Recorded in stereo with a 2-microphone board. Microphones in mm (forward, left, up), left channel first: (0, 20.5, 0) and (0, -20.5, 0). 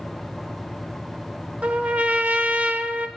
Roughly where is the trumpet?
Right.